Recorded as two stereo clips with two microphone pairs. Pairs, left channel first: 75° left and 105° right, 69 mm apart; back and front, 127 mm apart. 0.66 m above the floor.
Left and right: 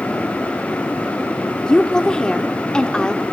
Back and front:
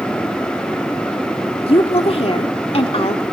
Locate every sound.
1.7 s a woman speaking: 150° left, 1.3 m